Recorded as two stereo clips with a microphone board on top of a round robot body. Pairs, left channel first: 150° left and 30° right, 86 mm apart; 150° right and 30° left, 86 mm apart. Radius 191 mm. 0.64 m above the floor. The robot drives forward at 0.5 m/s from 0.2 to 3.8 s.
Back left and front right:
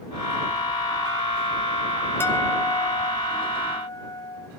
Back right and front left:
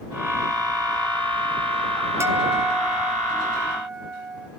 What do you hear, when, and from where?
2.2 s a guitar: 85° left, 2 m; by 4.5 s 110° left, 2 m